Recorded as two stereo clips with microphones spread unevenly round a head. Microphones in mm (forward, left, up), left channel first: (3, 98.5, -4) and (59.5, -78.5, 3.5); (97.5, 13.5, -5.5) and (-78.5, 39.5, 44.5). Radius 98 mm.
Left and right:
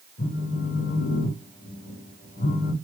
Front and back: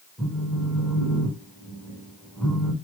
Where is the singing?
No singing in this recording.